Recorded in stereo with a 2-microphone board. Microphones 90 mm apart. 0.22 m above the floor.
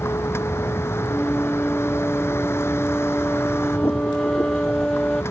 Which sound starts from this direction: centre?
A flute, at 1.1 s.